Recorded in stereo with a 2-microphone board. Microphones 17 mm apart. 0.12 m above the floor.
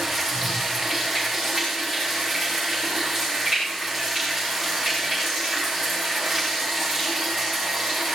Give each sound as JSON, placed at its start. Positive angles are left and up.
{"t": 0.0, "sound": "running water", "side_deg": -5, "distance_m": 9.5}